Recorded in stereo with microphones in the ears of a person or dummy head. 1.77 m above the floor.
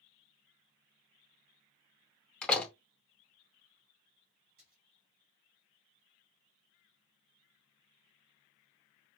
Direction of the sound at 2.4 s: 5° left (ahead or behind).